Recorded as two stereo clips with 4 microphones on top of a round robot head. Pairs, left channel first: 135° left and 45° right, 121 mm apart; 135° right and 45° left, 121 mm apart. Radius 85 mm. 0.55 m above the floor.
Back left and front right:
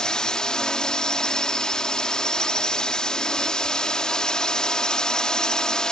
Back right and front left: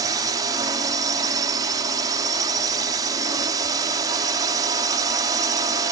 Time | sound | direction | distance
0.0 | a drone | 55° left | ?